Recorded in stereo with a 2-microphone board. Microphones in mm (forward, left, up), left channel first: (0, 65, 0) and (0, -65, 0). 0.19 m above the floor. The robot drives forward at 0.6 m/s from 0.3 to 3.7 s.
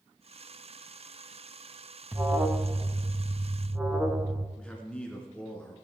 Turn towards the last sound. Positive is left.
turn(degrees=10)  # may be behind; listen again after turning